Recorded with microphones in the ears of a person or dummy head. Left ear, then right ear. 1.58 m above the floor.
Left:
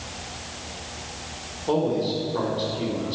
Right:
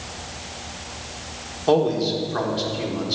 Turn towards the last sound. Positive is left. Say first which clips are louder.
# right 4 dB
turn(degrees=-65)  # may be behind; listen again after turning